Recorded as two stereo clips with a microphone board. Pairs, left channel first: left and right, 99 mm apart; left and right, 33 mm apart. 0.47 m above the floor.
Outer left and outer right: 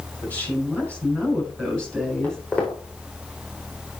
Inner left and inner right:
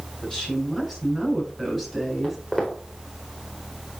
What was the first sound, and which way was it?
A woman speaking, 15° left (ahead or behind).